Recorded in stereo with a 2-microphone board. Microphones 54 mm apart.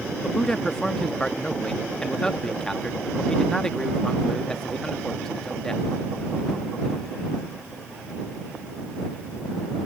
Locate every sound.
0.2 s a man speaking: 10° left (ahead or behind)